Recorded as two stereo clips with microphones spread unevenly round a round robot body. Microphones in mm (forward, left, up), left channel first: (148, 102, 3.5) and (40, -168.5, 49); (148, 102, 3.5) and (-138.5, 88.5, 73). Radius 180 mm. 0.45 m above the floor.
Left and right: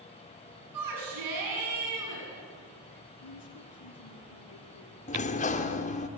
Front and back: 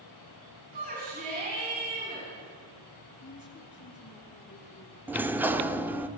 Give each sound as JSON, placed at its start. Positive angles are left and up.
{"t": 0.7, "sound": "a shout", "azimuth_deg": -110, "distance_m": 5.5}
{"t": 3.2, "sound": "a woman speaking", "azimuth_deg": 50, "distance_m": 5.0}
{"t": 5.1, "sound": "a sliding door", "azimuth_deg": 80, "distance_m": 1.4}